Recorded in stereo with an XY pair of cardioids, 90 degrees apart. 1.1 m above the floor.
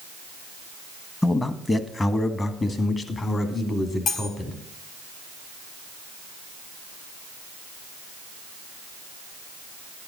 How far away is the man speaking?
About 1.4 m.